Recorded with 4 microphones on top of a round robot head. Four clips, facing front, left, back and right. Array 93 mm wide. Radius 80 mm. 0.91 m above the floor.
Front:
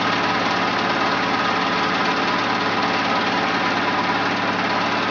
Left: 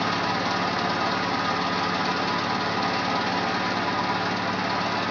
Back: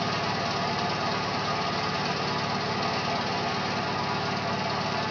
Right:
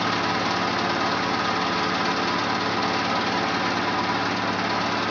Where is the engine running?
5° right, 1.4 m.